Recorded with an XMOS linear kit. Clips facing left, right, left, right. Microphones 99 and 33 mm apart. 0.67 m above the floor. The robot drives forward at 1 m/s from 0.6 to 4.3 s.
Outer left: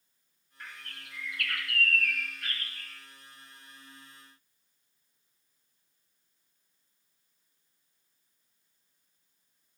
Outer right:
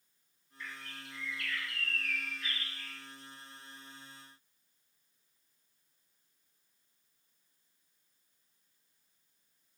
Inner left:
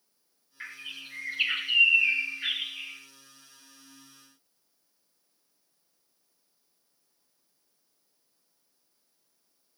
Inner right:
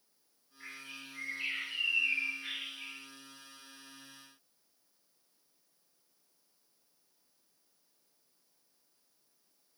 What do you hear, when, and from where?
0.6 s a bird: 55° left (ahead or behind), 1.9 m; by 3.0 s 45° left (ahead or behind), 2 m